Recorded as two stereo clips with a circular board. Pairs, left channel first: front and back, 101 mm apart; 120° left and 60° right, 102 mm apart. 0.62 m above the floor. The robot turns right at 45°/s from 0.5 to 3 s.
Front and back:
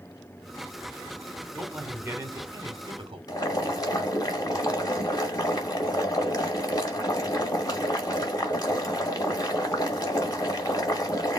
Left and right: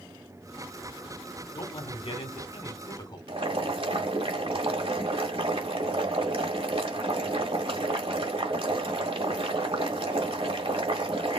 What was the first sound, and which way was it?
A man speaking, 90° left.